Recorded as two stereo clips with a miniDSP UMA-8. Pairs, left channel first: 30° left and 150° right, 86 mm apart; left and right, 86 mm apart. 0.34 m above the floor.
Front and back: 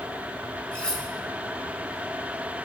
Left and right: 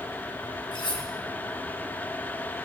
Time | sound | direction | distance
0.7 | cutlery clinking | 105° left | 2 m